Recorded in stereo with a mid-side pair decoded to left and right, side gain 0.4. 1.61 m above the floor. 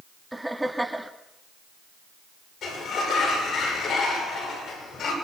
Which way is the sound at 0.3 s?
10° right.